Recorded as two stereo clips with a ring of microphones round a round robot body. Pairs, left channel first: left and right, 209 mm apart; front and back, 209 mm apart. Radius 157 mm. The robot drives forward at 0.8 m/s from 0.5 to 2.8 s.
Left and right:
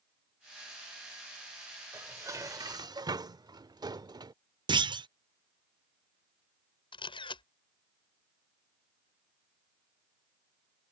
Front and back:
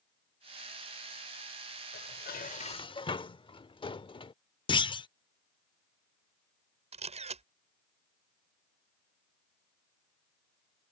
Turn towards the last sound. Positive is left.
turn(degrees=145)